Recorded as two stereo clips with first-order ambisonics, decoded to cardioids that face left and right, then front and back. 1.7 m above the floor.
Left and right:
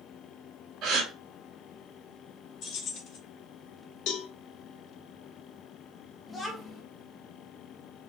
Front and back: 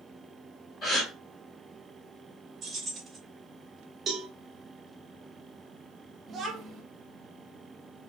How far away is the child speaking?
About 1.0 m.